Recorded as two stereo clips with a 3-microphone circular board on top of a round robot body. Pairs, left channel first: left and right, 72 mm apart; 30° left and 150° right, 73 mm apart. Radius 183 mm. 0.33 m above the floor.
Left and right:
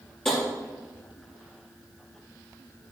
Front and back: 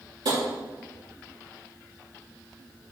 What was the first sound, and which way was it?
Tapping, 170° left.